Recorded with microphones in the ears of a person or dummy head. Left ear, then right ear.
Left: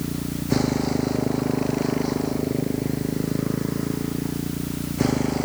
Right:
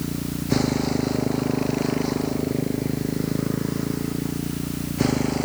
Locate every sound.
0.0 s a motorcycle: 5° right (ahead or behind)